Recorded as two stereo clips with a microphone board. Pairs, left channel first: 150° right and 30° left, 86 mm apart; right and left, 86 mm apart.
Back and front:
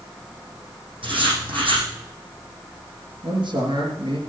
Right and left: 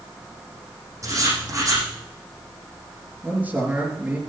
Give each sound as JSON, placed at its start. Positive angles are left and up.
{"t": 1.0, "sound": "writing", "azimuth_deg": 40, "distance_m": 6.0}
{"t": 3.2, "sound": "a man speaking", "azimuth_deg": 15, "distance_m": 4.5}